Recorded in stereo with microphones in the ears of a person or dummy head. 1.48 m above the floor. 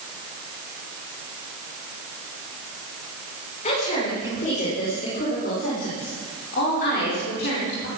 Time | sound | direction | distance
3.6 | a woman speaking | 35° left (ahead or behind) | 5.5 m